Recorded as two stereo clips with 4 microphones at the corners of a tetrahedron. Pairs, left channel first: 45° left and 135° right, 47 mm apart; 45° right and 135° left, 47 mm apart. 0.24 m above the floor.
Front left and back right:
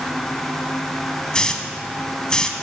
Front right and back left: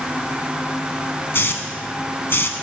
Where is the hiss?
25° right, 0.8 m.